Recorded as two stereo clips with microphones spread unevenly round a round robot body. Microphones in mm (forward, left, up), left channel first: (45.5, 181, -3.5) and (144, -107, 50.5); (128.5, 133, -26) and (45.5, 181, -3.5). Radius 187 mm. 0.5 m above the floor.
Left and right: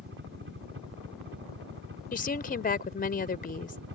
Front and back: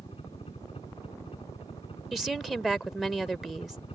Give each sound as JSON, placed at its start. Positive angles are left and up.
{"t": 0.0, "sound": "a helicopter", "azimuth_deg": -20}
{"t": 2.1, "sound": "a woman speaking", "azimuth_deg": 55}